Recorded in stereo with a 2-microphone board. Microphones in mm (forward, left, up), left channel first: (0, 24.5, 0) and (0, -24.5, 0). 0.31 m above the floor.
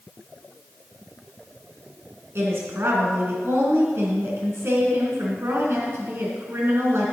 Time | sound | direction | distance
2.4 | a woman speaking | 60° right (ahead or behind) | 3 m